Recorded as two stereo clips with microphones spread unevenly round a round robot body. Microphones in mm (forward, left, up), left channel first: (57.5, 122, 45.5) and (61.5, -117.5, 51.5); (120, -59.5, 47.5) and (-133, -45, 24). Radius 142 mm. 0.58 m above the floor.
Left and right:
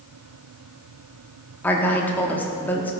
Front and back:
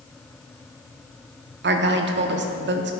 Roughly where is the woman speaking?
Behind.